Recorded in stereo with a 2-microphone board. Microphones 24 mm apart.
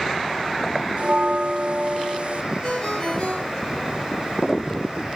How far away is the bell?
About 0.7 m.